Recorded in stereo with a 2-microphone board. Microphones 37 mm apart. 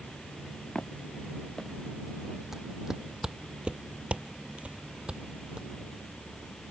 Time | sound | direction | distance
0.8 | footsteps | 20° left (ahead or behind) | ?
2.5 | footsteps | 10° right (ahead or behind) | ?